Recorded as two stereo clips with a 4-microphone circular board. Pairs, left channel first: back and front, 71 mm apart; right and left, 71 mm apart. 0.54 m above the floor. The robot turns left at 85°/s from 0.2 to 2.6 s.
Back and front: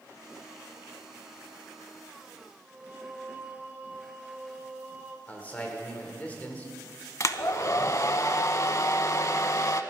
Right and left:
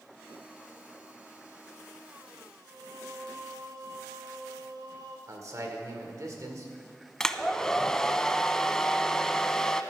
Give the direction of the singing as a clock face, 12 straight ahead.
10 o'clock.